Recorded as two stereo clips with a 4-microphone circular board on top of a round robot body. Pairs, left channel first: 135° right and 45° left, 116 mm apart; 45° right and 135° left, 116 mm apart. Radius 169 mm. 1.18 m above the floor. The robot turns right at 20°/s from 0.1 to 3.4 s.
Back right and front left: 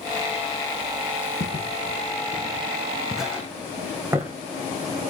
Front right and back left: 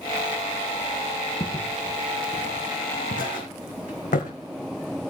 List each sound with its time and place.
1.4 s footsteps: 105° right, 3 m; by 4.3 s 25° right, 3 m